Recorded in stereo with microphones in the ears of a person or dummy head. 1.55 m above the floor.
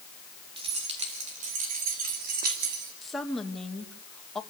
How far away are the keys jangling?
About 2.5 m.